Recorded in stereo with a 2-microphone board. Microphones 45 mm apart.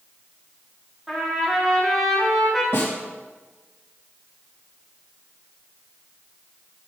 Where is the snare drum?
60° left (ahead or behind), 2.5 m.